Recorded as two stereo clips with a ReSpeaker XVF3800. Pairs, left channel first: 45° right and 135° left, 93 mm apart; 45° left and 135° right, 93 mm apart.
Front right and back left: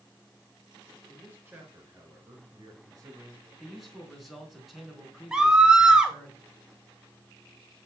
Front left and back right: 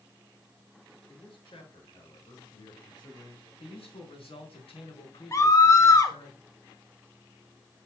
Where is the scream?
60° left, 1.3 m.